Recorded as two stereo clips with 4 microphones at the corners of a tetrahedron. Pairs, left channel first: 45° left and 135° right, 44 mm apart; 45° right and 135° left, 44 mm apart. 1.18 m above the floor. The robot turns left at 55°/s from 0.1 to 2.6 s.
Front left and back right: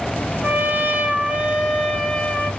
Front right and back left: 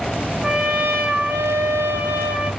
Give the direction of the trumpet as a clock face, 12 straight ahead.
5 o'clock.